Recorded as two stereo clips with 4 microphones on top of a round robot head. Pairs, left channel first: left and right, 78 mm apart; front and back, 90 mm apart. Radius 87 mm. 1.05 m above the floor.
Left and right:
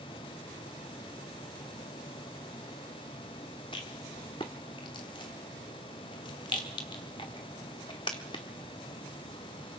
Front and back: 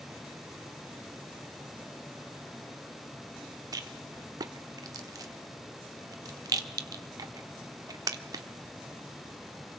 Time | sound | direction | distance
3.7 | a rattle | 135° left | 1.0 m